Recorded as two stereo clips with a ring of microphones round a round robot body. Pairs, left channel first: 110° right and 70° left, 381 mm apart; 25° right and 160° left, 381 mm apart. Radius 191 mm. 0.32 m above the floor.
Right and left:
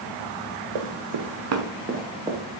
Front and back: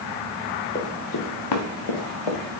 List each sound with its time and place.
0.8 s running footsteps: 45° left, 2 m; by 2.4 s 15° right, 2.5 m